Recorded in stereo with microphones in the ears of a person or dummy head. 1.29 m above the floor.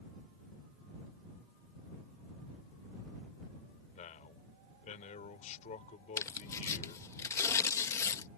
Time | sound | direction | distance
3.9 | a man speaking | 40° left (ahead or behind) | ?
6.2 | tearing paper | 15° left (ahead or behind) | ?